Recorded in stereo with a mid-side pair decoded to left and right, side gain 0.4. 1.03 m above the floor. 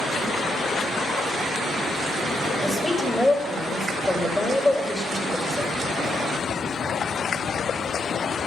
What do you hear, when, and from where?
2.6 s a woman speaking: 15° left, 4 m